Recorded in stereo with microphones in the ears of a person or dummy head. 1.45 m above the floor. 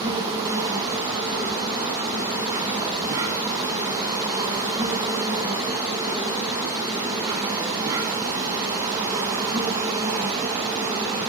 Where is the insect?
15° right (ahead or behind), 1.4 m.